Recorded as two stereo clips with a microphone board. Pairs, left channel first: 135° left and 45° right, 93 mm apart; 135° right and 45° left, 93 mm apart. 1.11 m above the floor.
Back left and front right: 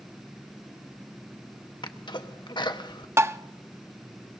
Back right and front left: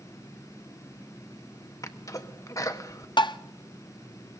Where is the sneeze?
170° left, 1.4 m.